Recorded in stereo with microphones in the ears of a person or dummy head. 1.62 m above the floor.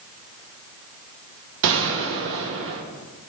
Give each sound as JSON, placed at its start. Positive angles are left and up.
{"t": 1.6, "sound": "a gunshot", "side_deg": -65, "distance_m": 1.1}